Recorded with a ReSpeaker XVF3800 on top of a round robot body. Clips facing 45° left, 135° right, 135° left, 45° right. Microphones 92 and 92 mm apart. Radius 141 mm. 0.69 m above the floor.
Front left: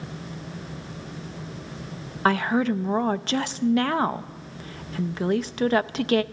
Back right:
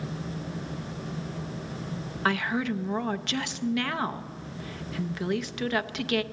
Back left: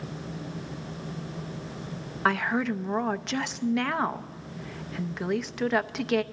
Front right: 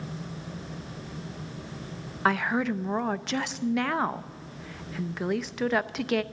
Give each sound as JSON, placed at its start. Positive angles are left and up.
{"t": 2.2, "sound": "a woman speaking", "azimuth_deg": 45, "distance_m": 0.7}